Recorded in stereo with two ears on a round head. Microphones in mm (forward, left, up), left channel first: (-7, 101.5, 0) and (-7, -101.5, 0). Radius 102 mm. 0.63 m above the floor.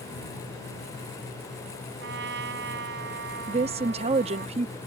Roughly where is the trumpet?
Right.